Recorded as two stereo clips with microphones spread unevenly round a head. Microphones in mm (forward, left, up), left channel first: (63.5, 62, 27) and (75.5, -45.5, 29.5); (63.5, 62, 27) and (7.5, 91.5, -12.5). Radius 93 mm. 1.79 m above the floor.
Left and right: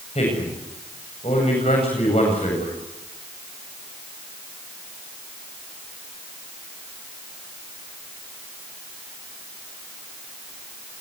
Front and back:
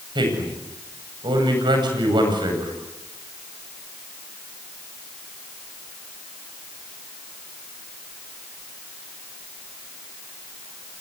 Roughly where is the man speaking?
Behind left.